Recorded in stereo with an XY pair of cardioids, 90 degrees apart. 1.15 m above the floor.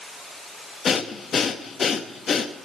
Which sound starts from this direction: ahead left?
Breathing, at 0.8 s.